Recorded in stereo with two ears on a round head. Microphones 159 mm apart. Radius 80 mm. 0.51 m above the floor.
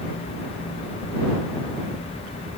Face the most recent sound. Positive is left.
No sound to turn to.